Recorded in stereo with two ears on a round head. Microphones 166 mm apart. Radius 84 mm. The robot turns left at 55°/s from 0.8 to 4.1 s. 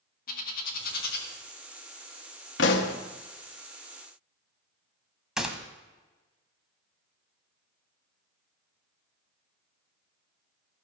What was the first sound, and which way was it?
A bird, 50° left (ahead or behind).